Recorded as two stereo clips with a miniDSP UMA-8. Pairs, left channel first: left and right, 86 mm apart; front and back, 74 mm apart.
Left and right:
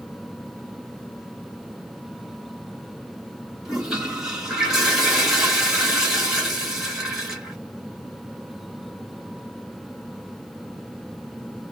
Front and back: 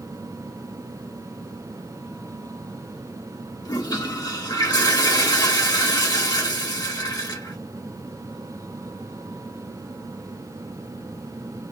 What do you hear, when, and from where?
3.6 s a toilet flushing: 10° right, 1.3 m